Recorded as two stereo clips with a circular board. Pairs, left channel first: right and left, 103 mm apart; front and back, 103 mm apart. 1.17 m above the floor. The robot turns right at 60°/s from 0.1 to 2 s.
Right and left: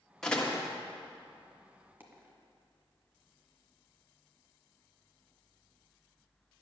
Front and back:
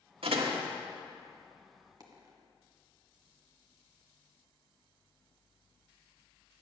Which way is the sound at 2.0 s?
150° left.